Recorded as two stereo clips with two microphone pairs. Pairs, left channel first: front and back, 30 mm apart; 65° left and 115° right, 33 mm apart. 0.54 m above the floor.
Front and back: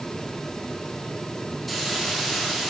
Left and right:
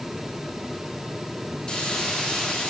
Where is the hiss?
85° left, 1.1 m.